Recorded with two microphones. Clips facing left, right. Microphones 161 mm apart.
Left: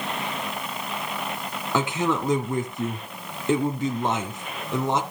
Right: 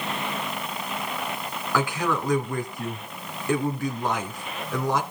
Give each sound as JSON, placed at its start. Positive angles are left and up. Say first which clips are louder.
{"t": 1.7, "sound": "a man speaking", "louder": "left 2 dB", "side_deg": 20, "distance_m": 3.0}